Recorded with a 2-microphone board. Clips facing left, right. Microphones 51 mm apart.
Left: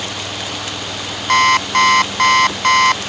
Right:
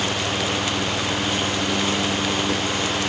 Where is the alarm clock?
80° left.